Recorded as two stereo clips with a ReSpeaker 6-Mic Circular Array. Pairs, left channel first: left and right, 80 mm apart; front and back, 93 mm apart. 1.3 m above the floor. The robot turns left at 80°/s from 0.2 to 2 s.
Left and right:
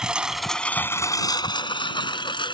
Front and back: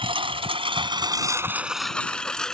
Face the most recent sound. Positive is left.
turn(degrees=85)